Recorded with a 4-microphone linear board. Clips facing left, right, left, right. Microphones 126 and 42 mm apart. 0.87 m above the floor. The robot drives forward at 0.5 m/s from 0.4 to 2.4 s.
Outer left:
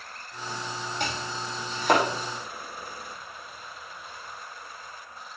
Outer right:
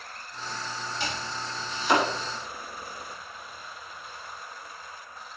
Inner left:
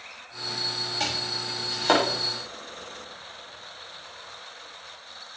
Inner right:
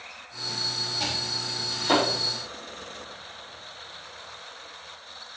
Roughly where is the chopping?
Left.